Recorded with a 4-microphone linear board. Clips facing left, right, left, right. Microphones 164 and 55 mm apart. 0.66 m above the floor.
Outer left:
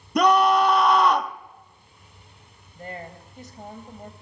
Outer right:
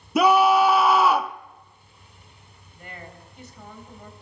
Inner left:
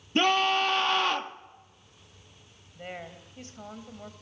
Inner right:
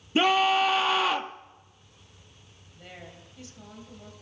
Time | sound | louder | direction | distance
0.1 | a scream | outer right 1 dB, inner right 2 dB | 5° right (ahead or behind) | 0.7 m
2.8 | a woman speaking | outer left 5 dB, inner left 6 dB | 40° left (ahead or behind) | 3 m